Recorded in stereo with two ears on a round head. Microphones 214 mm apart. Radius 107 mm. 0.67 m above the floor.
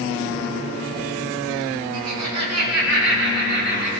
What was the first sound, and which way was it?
Laughter, 75° right (ahead or behind).